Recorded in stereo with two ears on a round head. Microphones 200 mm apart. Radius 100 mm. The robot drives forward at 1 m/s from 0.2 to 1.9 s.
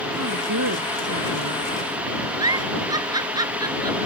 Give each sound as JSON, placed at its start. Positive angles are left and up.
{"t": 0.2, "sound": "a woman speaking", "side_deg": -80}
{"t": 2.4, "sound": "a giggle", "side_deg": -20}